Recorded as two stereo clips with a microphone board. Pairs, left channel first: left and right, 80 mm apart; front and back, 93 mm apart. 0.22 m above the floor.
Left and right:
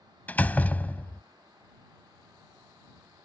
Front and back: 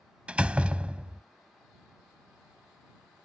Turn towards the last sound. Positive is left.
turn(degrees=125)